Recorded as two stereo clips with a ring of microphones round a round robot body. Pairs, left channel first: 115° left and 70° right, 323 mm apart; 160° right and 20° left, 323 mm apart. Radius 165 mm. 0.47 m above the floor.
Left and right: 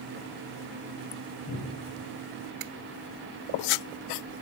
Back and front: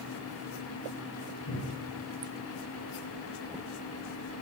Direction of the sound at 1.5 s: 175° right.